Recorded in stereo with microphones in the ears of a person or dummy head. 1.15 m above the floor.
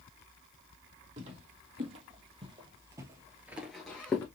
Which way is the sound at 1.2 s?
45° right (ahead or behind).